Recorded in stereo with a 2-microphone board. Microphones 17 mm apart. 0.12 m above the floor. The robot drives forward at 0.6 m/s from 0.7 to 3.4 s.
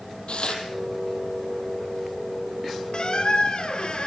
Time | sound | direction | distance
0.3 | tearing paper | 65° left (ahead or behind) | 4.5 m
2.9 | a squeak | 50° left (ahead or behind) | 1.9 m